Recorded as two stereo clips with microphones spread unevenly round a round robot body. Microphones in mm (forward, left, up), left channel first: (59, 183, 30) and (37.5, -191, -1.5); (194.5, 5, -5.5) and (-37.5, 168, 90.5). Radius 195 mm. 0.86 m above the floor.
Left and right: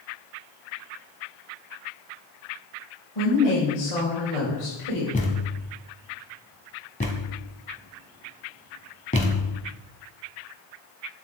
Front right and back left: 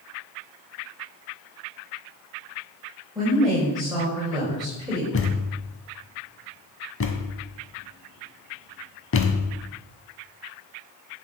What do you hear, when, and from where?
3.1 s a woman speaking: 65° left, 5.5 m
5.1 s a thud: 20° left, 1.7 m